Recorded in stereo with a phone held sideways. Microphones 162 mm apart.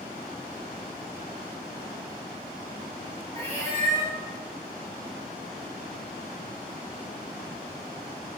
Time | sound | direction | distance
3.4 | a cat meowing | 40° right (ahead or behind) | 1.4 m